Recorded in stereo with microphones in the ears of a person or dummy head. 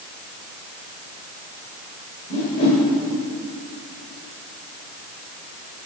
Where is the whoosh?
30° left (ahead or behind), 1.6 m.